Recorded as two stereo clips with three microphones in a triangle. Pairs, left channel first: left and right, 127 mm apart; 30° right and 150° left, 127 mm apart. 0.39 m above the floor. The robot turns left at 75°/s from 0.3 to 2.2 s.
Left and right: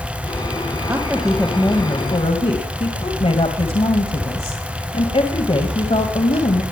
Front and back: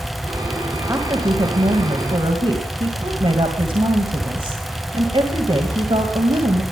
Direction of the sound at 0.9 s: 150° right.